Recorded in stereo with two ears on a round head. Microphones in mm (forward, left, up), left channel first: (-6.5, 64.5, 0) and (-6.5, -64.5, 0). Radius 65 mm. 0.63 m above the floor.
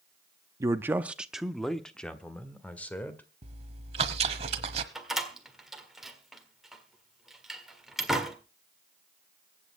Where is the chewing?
45° right (ahead or behind), 1.1 m.